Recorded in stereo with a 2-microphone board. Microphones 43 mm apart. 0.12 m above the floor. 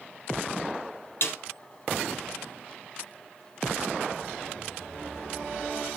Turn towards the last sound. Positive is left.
turn(degrees=60)  # may be behind; listen again after turning